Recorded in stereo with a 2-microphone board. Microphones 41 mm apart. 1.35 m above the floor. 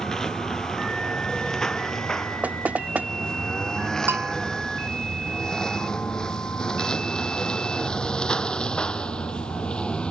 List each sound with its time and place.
0.0 s a lawn mower: 15° left (ahead or behind); by 10.1 s 25° left (ahead or behind)
2.4 s knocking: 35° right (ahead or behind)
4.1 s a bell: 60° right (ahead or behind)